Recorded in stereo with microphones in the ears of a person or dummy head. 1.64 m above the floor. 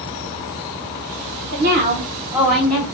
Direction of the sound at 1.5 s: 60° right (ahead or behind).